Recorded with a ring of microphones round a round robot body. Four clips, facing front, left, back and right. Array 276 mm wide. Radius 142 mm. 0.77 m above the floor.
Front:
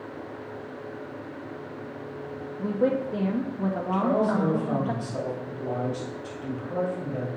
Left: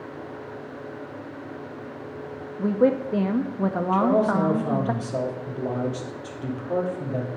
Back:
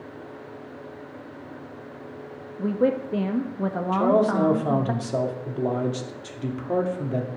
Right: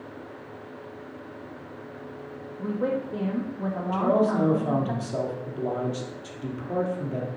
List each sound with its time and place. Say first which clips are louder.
2.6 s a woman speaking: left 7 dB, back 2 dB; 110° left, 1.0 m
3.9 s a man speaking: left 1 dB, back 4 dB; straight behind, 2 m